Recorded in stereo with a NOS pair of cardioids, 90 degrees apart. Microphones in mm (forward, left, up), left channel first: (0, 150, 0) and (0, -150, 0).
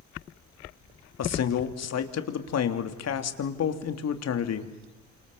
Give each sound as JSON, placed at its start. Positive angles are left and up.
{"t": 1.2, "sound": "a man speaking", "azimuth_deg": 60, "distance_m": 3.0}